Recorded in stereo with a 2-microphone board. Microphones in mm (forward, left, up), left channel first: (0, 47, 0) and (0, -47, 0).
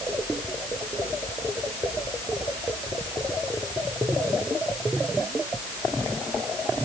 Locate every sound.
Only background noise.